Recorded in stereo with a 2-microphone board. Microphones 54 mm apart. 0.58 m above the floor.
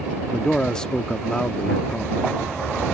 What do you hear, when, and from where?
0.3 s a man speaking: 15° left (ahead or behind)